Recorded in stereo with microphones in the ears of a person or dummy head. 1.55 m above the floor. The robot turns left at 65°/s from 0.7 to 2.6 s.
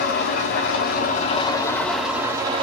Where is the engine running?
85° left, 2.5 m; by 2.6 s 35° right, 2.5 m.